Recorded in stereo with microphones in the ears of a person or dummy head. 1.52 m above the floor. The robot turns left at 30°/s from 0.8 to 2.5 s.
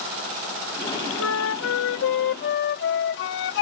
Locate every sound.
1.2 s a flute: 110° left; by 3.6 s 70° left